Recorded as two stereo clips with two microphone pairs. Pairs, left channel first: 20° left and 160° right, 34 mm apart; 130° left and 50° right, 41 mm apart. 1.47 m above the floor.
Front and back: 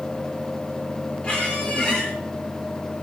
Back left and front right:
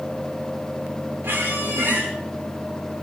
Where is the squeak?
40° right, 4 m.